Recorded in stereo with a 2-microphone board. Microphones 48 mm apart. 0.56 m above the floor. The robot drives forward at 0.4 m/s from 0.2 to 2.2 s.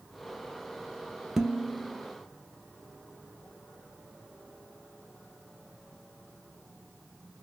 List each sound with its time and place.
1.4 s dishes clattering: 10° right (ahead or behind), 0.5 m; by 2.1 s 5° right (ahead or behind), 0.8 m